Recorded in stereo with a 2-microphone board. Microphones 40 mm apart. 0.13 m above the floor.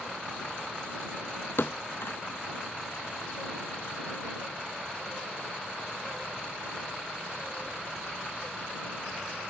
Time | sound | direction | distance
1.6 | a thud | 65° left (ahead or behind) | ?